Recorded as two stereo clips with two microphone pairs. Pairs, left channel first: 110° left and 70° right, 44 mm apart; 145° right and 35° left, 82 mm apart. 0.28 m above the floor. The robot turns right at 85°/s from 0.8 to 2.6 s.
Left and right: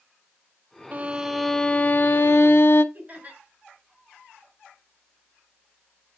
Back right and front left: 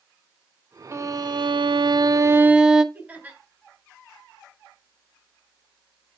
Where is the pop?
No pop in this recording.